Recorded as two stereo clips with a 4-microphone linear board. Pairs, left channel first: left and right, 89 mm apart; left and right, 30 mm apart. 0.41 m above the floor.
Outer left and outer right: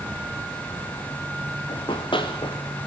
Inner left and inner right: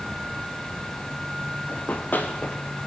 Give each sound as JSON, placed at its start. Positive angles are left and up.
{"t": 1.7, "sound": "running footsteps", "side_deg": 70, "distance_m": 4.0}